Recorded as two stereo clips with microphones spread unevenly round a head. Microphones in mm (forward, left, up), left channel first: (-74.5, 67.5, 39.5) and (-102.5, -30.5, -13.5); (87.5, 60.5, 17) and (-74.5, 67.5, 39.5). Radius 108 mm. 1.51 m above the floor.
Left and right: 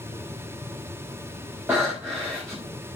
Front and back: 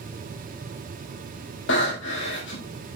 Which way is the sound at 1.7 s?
20° right.